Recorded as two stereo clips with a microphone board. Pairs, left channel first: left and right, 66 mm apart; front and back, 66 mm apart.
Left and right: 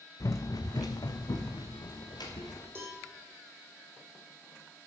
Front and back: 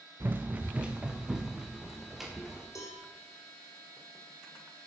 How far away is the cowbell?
About 4 m.